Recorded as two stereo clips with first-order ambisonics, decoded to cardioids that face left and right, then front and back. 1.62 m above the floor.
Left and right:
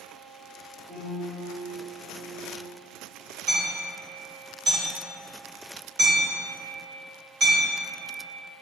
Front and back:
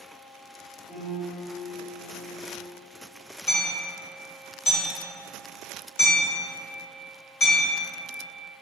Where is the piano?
75° right, 1.5 m.